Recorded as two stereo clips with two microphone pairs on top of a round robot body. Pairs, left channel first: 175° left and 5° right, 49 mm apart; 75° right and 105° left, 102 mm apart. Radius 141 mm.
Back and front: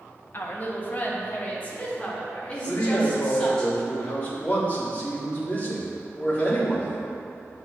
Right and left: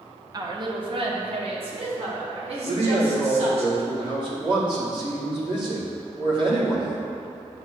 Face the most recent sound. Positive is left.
turn(degrees=120)